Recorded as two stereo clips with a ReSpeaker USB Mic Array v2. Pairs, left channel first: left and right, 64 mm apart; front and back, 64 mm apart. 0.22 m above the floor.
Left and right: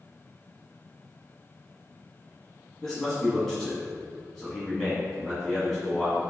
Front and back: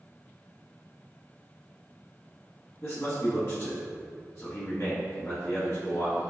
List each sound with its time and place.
2.8 s a man speaking: 10° left, 1.4 m